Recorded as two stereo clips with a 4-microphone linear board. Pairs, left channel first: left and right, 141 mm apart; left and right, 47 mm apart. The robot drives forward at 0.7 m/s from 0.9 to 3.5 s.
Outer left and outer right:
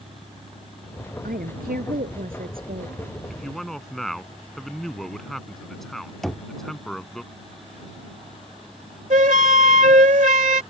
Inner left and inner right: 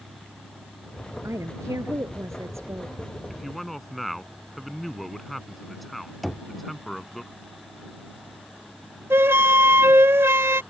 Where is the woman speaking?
85° right; by 3.0 s 80° right.